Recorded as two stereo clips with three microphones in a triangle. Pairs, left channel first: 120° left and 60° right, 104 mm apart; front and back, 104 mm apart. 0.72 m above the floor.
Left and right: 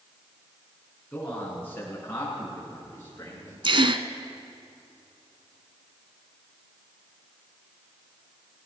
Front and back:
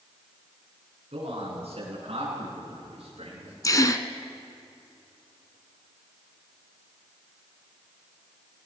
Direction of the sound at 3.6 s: 45° right.